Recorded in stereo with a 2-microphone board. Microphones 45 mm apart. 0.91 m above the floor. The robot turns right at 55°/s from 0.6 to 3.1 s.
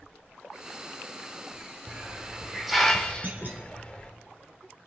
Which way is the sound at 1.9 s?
45° right (ahead or behind).